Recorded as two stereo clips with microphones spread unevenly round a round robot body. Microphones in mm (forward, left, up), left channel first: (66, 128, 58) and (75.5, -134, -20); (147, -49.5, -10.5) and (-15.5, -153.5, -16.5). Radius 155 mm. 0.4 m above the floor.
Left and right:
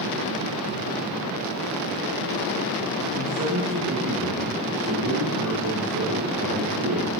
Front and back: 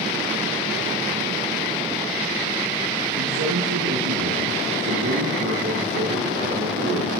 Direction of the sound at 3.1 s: 135° right.